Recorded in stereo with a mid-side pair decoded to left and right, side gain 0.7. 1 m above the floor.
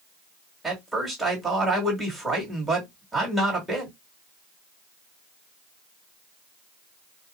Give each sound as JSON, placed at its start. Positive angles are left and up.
{"t": 0.6, "sound": "a man speaking", "azimuth_deg": -10, "distance_m": 2.5}